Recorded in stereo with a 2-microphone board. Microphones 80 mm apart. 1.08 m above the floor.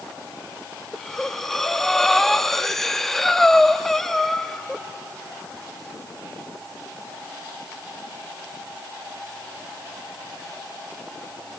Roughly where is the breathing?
Centre.